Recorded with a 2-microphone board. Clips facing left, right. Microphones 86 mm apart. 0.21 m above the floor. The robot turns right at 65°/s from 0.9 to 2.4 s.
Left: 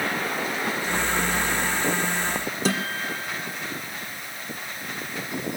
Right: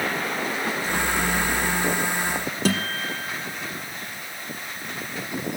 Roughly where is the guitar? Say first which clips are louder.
Right 2 dB; right.